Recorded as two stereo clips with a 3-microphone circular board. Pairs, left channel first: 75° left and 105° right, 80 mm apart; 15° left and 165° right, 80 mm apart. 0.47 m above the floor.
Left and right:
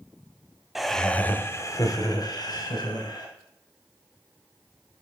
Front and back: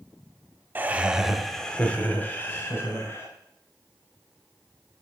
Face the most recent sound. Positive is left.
turn(degrees=70)